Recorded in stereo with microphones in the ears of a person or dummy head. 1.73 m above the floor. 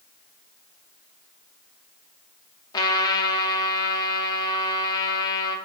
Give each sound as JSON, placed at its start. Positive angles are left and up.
{"t": 2.7, "sound": "a trumpet", "side_deg": 25, "distance_m": 0.9}